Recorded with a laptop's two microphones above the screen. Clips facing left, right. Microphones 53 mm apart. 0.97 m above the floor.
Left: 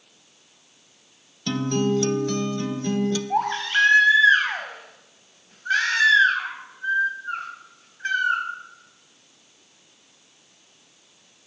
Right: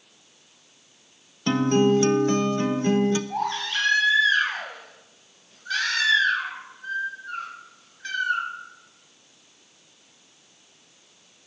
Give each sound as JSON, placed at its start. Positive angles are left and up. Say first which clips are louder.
{"t": 1.5, "sound": "a guitar", "louder": "right 4 dB", "side_deg": -30, "distance_m": 0.6}
{"t": 3.3, "sound": "a baby crying", "louder": "left 5 dB", "side_deg": 40, "distance_m": 4.5}